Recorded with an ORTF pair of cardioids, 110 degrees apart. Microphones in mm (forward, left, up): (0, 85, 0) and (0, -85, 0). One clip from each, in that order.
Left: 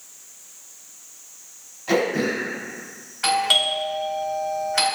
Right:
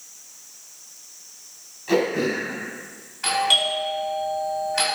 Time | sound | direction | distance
1.9 | throat clearing | 40° left | 2.0 m
3.2 | a doorbell | 35° left | 1.9 m